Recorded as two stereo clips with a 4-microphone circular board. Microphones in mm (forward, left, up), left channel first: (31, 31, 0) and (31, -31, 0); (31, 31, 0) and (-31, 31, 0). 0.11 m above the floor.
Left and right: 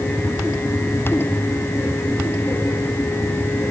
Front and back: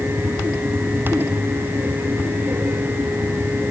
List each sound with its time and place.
Only background noise.